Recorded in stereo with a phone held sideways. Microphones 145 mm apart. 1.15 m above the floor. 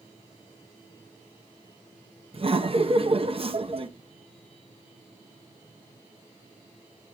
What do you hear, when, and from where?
2.3 s laughter: 40° right (ahead or behind), 0.9 m